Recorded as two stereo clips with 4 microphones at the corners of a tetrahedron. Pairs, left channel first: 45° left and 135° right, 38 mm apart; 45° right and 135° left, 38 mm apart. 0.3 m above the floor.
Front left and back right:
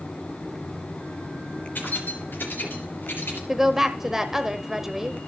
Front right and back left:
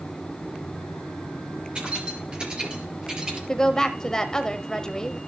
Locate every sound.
1.8 s keys jangling: 70° left, 4 m; by 3.4 s 65° left, 4.5 m
3.5 s a woman speaking: 85° right, 0.9 m